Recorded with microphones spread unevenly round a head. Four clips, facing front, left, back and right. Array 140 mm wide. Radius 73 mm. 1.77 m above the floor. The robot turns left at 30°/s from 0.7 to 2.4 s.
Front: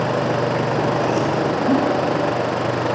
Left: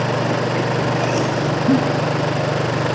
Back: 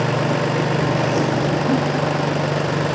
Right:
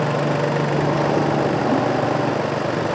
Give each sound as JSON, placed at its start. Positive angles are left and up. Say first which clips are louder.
{"t": 1.7, "sound": "a giggle", "louder": "left 7 dB, front 3 dB", "azimuth_deg": 80, "distance_m": 0.7}